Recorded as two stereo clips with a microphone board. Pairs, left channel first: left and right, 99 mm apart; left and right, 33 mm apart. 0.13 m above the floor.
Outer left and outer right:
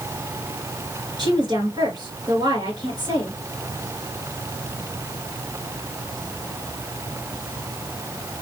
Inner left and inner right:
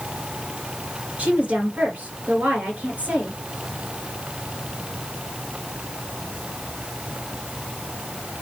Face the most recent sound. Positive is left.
turn(degrees=-45)  # may be behind; listen again after turning